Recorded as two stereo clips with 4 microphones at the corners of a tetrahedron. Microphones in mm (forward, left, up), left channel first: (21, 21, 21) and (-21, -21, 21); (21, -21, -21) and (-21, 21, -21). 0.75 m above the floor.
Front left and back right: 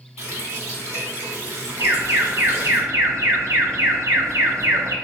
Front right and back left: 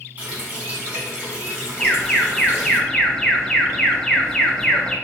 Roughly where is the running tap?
Behind.